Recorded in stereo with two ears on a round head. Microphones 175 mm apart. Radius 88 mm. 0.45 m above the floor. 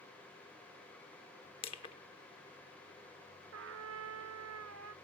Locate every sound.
1.6 s crushing: 30° left (ahead or behind), 1.0 m
3.5 s a trumpet: 75° right (ahead or behind), 0.8 m